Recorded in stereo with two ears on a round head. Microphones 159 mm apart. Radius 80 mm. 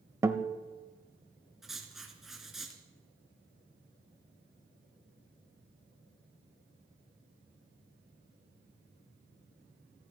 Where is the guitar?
15° right (ahead or behind), 1.0 m.